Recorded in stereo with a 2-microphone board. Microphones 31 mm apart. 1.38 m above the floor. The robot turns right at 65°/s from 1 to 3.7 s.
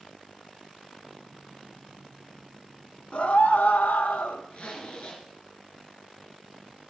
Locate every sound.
3.1 s a scream: 50° left, 1.4 m; by 4.4 s 85° left, 1.4 m
4.5 s a zipper: 50° left (ahead or behind), 3.5 m